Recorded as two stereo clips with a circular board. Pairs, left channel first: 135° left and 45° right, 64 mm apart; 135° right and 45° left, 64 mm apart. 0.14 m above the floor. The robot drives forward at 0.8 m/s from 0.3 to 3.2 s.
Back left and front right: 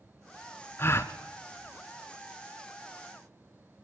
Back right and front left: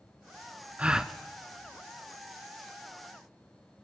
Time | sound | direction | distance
0.8 | a gasp | 105° left | 0.7 m